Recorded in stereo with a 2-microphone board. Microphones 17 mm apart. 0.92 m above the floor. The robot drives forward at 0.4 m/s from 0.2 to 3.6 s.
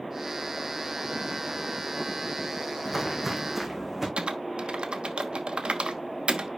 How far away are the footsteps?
About 2.5 m.